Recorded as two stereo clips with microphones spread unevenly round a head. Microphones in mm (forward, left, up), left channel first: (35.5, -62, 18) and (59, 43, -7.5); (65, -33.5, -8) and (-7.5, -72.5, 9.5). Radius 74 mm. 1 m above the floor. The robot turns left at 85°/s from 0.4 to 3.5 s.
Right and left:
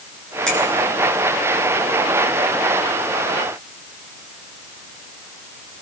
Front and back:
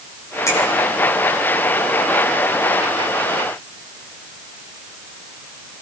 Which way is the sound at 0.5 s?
15° right.